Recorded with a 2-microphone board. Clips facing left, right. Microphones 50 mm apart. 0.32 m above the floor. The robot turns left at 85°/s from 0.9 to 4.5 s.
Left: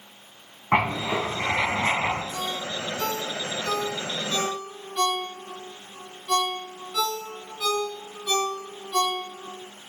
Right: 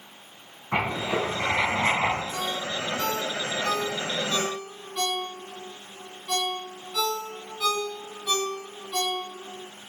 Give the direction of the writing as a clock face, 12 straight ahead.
10 o'clock.